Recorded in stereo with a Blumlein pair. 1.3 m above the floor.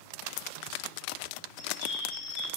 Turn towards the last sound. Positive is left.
turn(degrees=50)